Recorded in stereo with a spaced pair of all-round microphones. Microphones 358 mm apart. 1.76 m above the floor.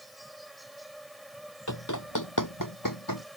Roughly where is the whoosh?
No whoosh in this recording.